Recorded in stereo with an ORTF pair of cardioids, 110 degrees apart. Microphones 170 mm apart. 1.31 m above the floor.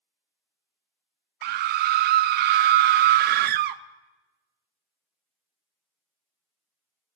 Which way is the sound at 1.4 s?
65° right.